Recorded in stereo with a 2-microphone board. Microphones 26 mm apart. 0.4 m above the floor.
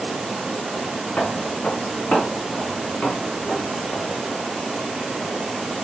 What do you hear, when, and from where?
1.2 s footsteps: 65° left (ahead or behind), 1.3 m; by 4.2 s 60° left (ahead or behind), 3 m